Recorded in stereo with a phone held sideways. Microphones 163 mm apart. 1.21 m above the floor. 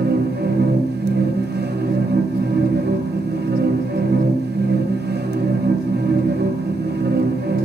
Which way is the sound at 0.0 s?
85° right.